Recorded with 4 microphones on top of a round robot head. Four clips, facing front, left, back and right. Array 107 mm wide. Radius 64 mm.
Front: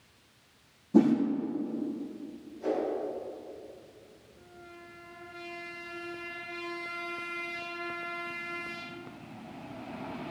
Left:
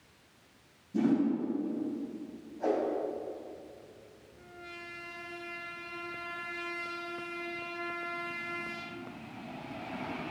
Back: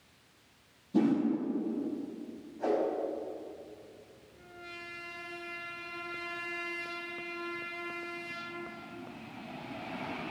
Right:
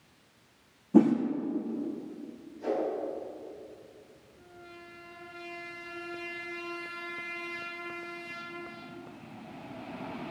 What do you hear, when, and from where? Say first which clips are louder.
0.9 s a whoosh: right 7 dB, front 5 dB; 65° right, 2.5 m
2.6 s a whoosh: left 1 dB, back 1 dB; 130° left, 4.5 m